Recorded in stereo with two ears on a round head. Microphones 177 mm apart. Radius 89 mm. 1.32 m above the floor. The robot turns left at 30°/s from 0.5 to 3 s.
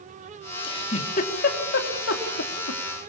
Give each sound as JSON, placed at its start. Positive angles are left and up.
{"t": 0.6, "sound": "a giggle", "side_deg": 25, "distance_m": 3.0}